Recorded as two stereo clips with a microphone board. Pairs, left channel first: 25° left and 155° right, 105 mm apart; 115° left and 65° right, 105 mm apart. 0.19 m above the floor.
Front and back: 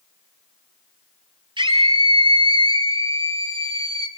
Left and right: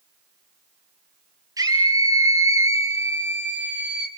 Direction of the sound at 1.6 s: 120° right.